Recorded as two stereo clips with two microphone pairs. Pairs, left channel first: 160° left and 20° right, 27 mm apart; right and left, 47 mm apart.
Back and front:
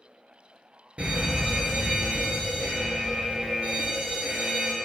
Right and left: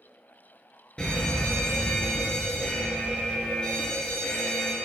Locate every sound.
1.0 s a fire alarm: 30° right, 3 m